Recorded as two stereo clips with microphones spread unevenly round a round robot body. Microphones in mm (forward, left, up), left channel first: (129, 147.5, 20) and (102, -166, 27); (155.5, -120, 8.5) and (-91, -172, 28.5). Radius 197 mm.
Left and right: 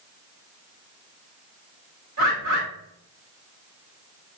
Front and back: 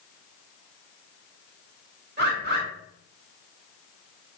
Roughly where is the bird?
Behind right.